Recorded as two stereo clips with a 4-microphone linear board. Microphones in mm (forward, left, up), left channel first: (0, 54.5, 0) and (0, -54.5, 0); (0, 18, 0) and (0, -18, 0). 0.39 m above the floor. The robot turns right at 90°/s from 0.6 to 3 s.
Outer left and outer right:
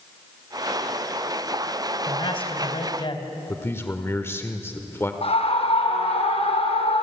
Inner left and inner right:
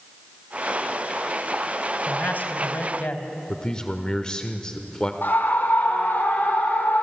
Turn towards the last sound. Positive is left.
turn(degrees=70)  # may be behind; listen again after turning